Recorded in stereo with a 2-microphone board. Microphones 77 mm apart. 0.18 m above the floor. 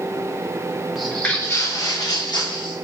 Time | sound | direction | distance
0.9 | footsteps | 5° right (ahead or behind) | 0.9 m